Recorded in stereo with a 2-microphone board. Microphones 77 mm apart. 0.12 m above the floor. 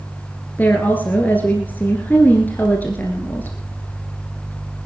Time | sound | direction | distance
0.6 | a woman speaking | 25° left (ahead or behind) | 1.9 m